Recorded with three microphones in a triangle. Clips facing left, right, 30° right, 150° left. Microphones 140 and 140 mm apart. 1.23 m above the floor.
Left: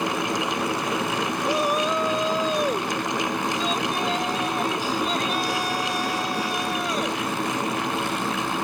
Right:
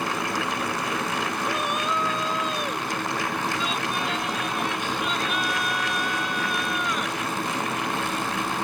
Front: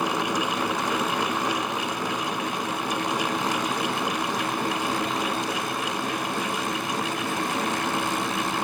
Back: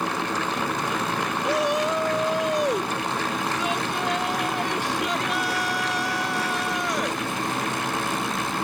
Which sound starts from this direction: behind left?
A shout, at 1.4 s.